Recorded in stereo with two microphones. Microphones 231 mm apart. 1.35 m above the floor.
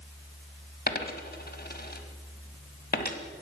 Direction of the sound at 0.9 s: 45° left (ahead or behind).